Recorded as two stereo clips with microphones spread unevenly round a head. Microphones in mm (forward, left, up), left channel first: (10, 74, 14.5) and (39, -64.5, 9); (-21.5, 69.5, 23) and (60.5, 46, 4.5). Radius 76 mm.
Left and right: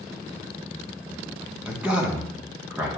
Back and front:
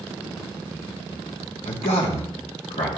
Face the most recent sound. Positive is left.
turn(degrees=-160)